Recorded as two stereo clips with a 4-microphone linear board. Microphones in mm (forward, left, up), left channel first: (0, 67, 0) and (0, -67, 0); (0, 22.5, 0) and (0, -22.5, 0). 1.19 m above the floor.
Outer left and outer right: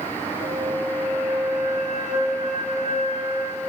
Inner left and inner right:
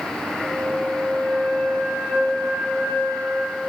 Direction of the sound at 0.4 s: 65° left (ahead or behind).